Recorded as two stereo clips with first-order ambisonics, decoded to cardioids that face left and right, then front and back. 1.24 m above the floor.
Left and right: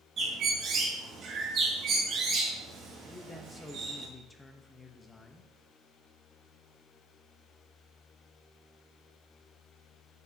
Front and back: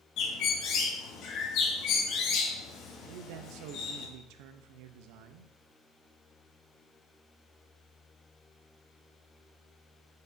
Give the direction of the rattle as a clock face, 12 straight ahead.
I don't hear a rattle.